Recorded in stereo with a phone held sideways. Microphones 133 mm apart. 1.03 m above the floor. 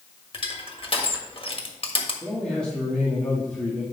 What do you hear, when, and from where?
0.3 s crushing: 45° left (ahead or behind), 1.6 m
2.2 s a man speaking: 5° left (ahead or behind), 2.5 m